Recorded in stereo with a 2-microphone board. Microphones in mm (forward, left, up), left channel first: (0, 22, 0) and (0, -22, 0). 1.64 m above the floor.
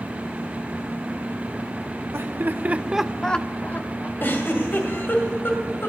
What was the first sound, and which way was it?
Laughter, 65° right (ahead or behind).